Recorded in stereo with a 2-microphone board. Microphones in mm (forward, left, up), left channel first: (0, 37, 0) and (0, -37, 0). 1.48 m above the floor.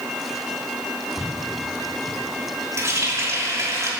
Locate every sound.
1.2 s footsteps: 30° right (ahead or behind), 4.5 m; by 2.2 s 40° right (ahead or behind), 3.5 m
2.8 s a running tap: 40° right (ahead or behind), 2.5 m